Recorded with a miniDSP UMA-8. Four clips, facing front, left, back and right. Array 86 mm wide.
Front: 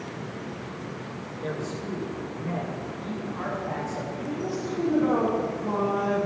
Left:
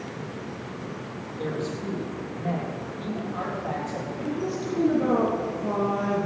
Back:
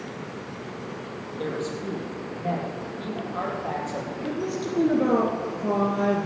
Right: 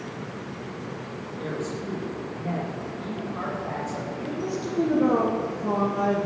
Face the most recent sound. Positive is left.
turn(degrees=180)